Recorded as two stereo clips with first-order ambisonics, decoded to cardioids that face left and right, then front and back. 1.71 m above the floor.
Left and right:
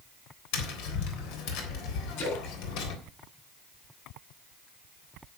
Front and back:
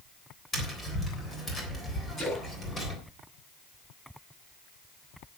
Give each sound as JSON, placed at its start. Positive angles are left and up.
{"t": 0.5, "sound": "tapping", "azimuth_deg": 75, "distance_m": 3.5}
{"t": 2.2, "sound": "a splash", "azimuth_deg": 75, "distance_m": 9.0}